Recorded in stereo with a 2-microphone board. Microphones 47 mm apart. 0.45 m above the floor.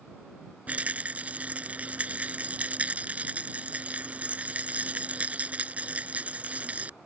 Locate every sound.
0.7 s a rattle: 25° right (ahead or behind)